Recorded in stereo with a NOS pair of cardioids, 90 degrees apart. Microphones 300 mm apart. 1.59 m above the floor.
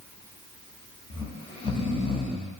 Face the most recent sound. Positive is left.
turn(degrees=20)